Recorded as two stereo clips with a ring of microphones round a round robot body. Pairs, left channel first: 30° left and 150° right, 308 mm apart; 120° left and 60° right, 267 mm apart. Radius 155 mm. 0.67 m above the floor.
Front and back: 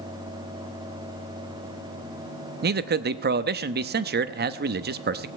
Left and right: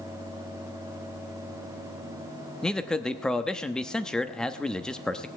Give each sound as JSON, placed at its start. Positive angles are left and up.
{"t": 2.6, "sound": "a man speaking", "azimuth_deg": -155, "distance_m": 0.8}